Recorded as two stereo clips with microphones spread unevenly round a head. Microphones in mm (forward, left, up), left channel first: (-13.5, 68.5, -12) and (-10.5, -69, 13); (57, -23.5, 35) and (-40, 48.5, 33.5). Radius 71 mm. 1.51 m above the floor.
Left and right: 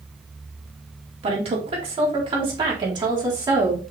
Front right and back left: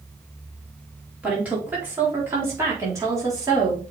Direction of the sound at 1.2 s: 135° right.